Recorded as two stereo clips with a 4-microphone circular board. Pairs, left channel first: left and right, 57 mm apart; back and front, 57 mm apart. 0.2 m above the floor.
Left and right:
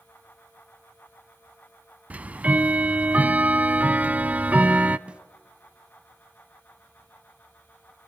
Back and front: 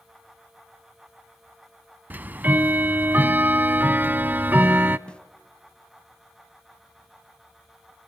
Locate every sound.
2.1 s ticking: 40° right, 0.5 m
5.1 s a snare drum: 130° right, 1.0 m